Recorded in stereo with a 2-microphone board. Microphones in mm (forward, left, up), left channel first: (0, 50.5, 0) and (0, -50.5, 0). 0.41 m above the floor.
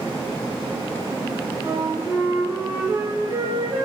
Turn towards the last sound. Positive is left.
turn(degrees=-35)  # may be behind; listen again after turning